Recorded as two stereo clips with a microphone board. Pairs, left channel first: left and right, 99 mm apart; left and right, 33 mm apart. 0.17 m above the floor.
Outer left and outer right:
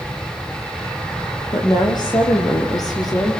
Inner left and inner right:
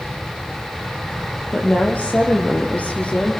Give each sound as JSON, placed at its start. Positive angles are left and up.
{"t": 1.5, "sound": "a woman speaking", "side_deg": 45, "distance_m": 4.5}